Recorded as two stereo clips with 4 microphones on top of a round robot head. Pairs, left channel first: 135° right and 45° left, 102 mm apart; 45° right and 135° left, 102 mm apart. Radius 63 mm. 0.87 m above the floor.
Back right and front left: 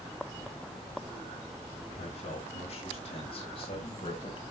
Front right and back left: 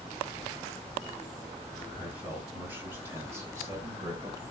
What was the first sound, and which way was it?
A man speaking, 150° right.